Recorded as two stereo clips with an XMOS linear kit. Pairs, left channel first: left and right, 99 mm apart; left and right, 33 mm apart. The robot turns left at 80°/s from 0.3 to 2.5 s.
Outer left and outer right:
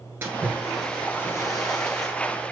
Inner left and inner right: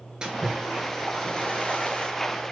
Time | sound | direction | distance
0.2 | a splash | 145° right | 1.2 m